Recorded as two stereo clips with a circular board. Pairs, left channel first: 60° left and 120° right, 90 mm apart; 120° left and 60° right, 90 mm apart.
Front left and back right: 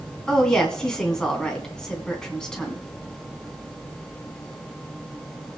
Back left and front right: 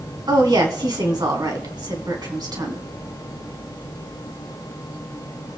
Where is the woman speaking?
20° right, 3 m.